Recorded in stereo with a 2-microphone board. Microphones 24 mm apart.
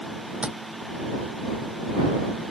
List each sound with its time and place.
0.4 s tapping: 55° right (ahead or behind)